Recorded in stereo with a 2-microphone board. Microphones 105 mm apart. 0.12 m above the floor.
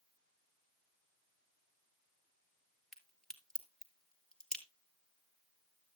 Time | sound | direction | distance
2.9 | a crack | 5° left (ahead or behind) | 2 m